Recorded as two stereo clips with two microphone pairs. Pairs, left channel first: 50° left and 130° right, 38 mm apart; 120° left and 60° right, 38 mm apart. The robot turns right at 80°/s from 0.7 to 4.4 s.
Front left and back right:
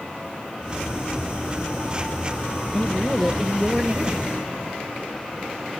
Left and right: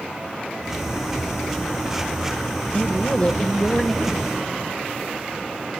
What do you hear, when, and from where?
2.7 s a man speaking: 100° left, 1.1 m; by 4.3 s 135° right, 1.1 m